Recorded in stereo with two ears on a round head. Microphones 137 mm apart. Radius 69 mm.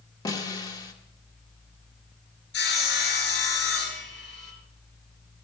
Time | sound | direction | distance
0.2 | a snare drum | 25° left (ahead or behind) | 1.9 m
2.5 | sawing | 80° left | 5 m